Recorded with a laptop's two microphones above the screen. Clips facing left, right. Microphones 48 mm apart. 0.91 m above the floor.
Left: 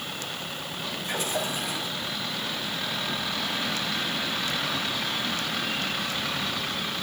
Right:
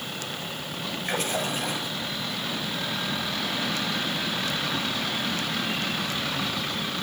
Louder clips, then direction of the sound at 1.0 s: Right 2 dB; 50° right (ahead or behind).